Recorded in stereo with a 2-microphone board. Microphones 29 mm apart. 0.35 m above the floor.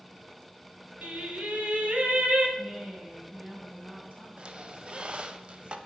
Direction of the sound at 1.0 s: 60° right (ahead or behind).